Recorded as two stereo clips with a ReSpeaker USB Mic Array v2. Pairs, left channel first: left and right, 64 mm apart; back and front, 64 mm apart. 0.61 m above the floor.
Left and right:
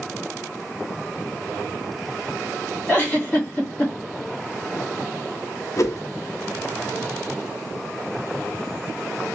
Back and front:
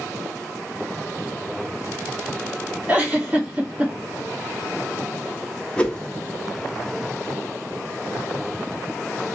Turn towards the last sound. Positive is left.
turn(degrees=110)